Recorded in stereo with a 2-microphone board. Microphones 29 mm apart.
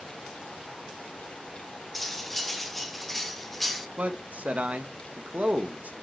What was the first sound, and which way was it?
Cutlery clinking, 5° left (ahead or behind).